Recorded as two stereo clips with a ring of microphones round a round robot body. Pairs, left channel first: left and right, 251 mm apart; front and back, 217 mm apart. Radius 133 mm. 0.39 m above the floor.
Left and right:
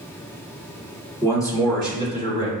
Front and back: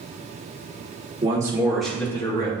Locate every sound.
1.2 s a man speaking: 150° left, 1.3 m; by 2.5 s 45° left, 1.4 m